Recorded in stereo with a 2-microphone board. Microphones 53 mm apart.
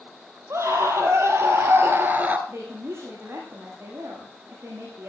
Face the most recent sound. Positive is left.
turn(degrees=-55)  # may be behind; listen again after turning